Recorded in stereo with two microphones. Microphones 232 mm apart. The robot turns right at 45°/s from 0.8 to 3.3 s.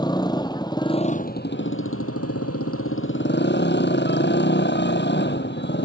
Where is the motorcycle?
20° left; by 5.9 s 130° left.